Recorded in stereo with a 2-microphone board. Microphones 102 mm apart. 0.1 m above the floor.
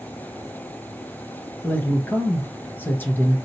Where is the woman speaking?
20° left (ahead or behind), 1.4 m.